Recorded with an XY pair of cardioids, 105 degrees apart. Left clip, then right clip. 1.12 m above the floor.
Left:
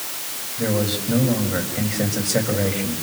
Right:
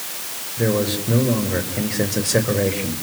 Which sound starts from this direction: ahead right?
A man speaking, at 0.6 s.